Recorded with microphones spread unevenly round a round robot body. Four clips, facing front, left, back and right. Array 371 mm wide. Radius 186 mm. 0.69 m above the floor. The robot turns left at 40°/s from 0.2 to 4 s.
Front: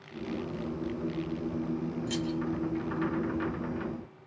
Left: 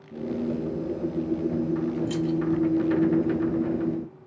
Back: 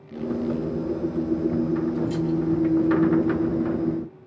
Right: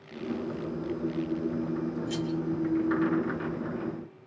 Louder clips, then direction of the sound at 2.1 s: Left 5 dB, back 8 dB; 75° left.